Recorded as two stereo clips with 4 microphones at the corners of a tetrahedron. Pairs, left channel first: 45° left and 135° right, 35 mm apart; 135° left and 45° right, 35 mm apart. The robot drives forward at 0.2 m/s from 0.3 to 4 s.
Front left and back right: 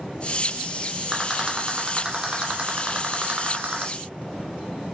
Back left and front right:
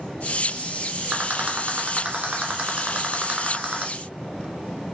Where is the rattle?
70° right, 0.9 m; by 3.9 s 105° right, 0.9 m.